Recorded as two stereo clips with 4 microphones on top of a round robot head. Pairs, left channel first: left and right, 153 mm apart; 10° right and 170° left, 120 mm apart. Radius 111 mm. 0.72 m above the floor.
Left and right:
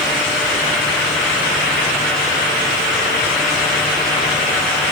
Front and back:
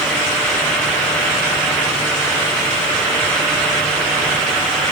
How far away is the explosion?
No explosion in this recording.